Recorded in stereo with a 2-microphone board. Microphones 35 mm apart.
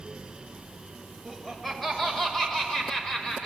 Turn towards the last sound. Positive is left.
turn(degrees=20)  # may be behind; listen again after turning